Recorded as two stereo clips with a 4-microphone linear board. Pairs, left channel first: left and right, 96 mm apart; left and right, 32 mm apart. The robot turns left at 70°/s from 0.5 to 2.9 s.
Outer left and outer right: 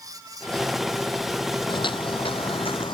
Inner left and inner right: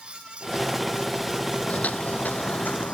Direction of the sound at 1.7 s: 55° left (ahead or behind).